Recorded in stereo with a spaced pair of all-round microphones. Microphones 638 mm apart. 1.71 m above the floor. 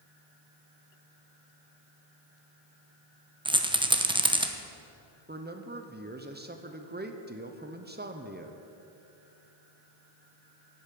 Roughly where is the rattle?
Centre.